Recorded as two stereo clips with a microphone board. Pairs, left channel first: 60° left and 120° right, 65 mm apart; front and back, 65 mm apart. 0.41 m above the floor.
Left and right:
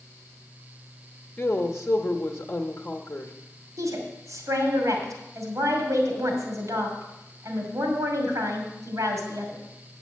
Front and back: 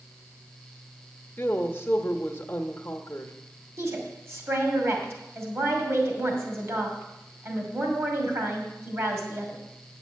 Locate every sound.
1.4 s a woman speaking: 45° left, 0.9 m
3.8 s a woman speaking: 140° right, 2.5 m